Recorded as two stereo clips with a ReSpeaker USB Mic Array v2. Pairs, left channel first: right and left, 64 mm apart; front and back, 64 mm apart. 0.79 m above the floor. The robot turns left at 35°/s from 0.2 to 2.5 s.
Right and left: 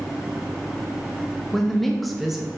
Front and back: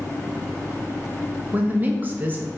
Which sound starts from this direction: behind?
A woman speaking, at 1.5 s.